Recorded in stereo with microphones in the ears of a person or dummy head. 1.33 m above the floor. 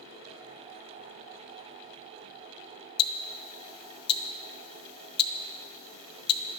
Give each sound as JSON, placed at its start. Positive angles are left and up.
{"t": 3.0, "sound": "ticking", "side_deg": 30, "distance_m": 0.5}